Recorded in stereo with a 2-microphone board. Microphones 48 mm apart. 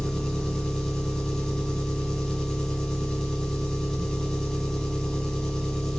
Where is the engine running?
15° left (ahead or behind), 1.1 m.